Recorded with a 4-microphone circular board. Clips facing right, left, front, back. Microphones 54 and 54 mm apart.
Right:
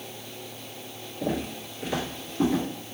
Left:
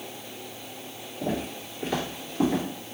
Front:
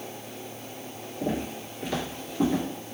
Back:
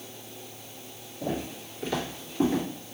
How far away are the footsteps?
About 1.7 m.